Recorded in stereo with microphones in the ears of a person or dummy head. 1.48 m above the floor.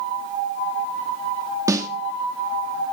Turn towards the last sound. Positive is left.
turn(degrees=-10)  # may be behind; listen again after turning